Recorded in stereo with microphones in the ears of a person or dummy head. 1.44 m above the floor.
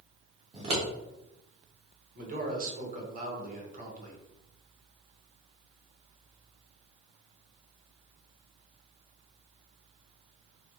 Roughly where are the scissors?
Right.